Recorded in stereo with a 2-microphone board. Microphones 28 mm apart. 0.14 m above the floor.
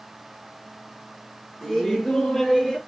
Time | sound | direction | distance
1.6 | laughter | 20° left (ahead or behind) | 2 m